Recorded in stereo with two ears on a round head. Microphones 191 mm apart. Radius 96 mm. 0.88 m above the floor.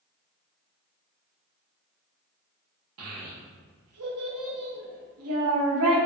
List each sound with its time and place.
3.0 s a child speaking: 75° right (ahead or behind), 0.8 m